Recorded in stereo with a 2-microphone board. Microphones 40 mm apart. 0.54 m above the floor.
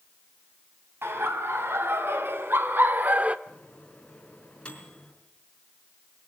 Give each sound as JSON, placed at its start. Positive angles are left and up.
{"t": 1.0, "sound": "laughter", "side_deg": -70, "distance_m": 3.0}
{"t": 3.5, "sound": "a microwave", "side_deg": 25, "distance_m": 4.5}